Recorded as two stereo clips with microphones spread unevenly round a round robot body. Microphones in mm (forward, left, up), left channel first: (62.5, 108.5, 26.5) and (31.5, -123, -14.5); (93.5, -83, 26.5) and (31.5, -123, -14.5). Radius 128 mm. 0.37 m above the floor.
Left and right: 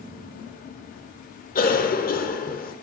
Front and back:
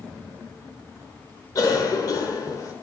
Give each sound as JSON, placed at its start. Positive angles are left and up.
{"t": 1.6, "sound": "a cough", "azimuth_deg": 95, "distance_m": 1.0}